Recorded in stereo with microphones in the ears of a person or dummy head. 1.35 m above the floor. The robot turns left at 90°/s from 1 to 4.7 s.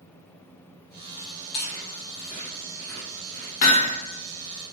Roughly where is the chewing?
Left.